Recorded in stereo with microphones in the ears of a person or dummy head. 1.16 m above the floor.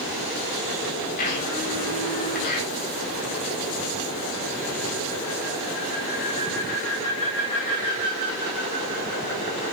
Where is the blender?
50° left (ahead or behind), 7.5 m.